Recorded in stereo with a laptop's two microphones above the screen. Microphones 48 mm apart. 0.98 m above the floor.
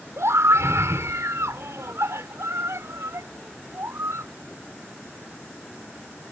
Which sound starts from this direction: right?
A scream, at 0.2 s.